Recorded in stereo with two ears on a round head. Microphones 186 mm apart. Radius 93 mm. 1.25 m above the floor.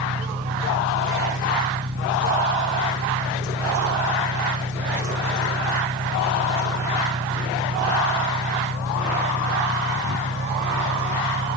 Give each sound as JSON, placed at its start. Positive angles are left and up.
{"t": 0.0, "sound": "an engine running", "side_deg": -55}